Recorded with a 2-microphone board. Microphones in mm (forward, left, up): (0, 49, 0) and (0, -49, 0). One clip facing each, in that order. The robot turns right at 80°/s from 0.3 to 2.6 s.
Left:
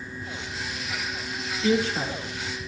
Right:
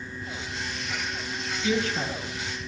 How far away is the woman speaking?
About 2 m.